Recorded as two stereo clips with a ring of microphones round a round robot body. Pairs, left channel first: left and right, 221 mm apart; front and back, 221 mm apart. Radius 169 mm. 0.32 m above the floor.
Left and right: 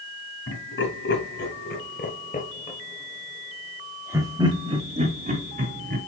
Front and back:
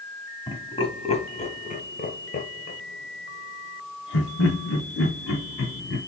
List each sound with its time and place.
0.5 s laughter: 70° left, 2.5 m; by 6.0 s 45° right, 2.5 m